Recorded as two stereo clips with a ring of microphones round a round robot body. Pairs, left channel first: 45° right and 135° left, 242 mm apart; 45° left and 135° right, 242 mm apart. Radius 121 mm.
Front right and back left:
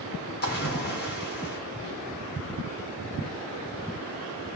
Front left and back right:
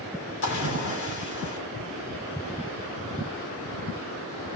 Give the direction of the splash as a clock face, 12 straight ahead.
12 o'clock.